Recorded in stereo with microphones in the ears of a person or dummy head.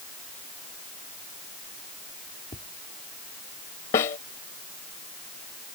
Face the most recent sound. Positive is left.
turn(degrees=20)  # may be behind; listen again after turning